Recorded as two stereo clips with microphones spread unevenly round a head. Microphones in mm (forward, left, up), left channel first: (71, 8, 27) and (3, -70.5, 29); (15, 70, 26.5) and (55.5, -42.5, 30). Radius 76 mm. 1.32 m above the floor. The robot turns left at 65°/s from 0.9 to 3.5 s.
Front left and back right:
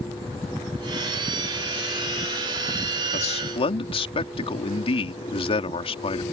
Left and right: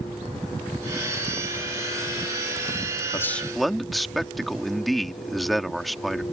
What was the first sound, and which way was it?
A man speaking, 45° left.